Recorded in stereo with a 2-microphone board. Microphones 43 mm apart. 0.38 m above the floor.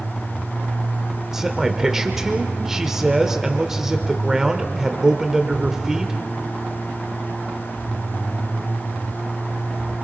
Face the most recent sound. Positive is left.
turn(degrees=-10)  # may be behind; listen again after turning